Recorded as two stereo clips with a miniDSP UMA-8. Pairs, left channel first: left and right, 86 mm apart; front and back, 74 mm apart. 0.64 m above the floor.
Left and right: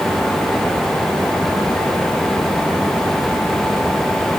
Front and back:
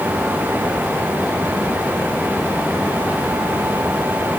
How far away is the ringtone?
No ringtone in this recording.